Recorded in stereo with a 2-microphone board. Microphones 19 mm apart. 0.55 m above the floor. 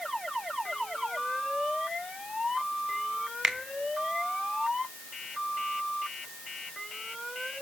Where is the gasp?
No gasp in this recording.